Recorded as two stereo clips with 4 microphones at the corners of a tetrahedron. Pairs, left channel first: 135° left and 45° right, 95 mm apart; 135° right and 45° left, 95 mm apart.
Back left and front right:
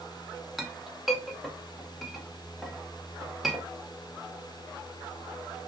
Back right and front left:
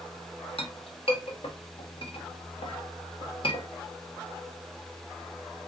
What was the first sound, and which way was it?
A clink, 135° right.